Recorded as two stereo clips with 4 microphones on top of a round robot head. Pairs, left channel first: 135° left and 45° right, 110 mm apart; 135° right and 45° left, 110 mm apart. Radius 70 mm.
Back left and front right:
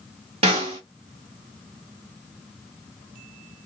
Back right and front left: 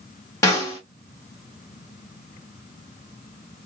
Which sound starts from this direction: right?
A snare drum, at 0.4 s.